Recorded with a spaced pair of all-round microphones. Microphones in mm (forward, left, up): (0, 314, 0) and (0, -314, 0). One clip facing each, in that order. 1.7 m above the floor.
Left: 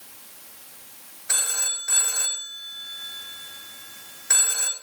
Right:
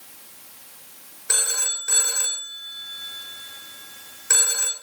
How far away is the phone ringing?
About 3.5 m.